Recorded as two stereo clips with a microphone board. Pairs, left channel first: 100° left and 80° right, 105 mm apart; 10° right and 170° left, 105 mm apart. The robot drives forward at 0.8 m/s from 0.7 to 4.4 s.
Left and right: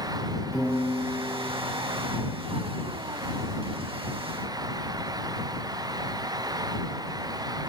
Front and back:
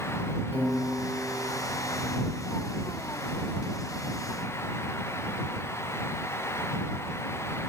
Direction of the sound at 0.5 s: 130° right.